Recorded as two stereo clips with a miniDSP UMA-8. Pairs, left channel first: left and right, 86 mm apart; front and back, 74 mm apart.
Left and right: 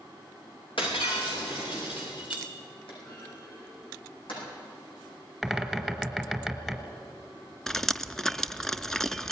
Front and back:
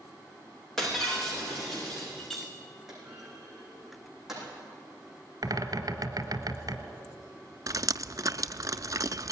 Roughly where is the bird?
Behind.